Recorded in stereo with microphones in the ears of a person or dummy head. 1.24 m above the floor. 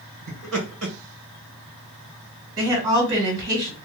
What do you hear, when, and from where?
0.3 s laughter: 75° right (ahead or behind), 1.8 m
2.6 s a woman speaking: 30° right (ahead or behind), 1.8 m